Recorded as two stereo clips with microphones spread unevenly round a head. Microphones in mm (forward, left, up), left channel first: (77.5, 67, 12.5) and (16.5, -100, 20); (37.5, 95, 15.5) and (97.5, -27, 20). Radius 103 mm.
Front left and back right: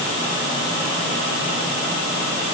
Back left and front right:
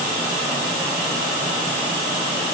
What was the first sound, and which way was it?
Only background noise.